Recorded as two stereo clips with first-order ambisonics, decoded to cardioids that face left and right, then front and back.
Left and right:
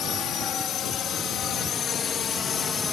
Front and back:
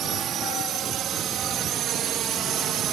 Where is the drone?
135° left; by 2.9 s 150° left.